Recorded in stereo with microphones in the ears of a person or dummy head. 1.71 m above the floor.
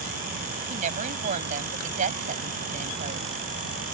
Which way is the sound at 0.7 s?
40° right (ahead or behind).